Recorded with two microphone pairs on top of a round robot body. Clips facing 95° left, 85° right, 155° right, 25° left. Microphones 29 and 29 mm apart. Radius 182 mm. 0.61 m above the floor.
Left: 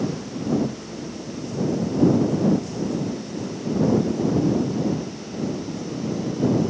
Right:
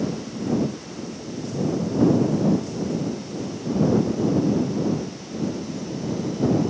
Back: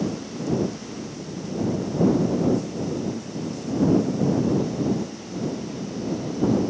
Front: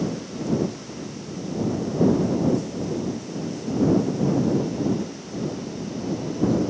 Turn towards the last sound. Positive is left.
No sound to turn to.